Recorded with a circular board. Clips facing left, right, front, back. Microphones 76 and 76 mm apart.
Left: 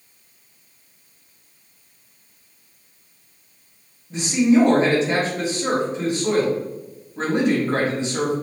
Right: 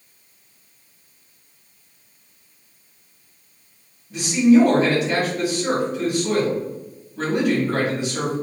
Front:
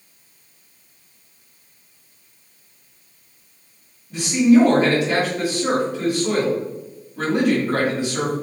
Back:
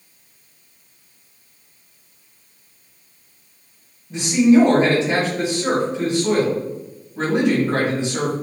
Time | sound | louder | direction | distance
4.1 | a man speaking | right 2 dB, back 1 dB | 130° left | 1.7 m